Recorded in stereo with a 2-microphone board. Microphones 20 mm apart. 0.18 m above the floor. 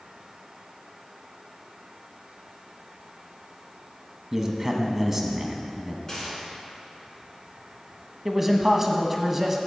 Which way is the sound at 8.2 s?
10° right (ahead or behind).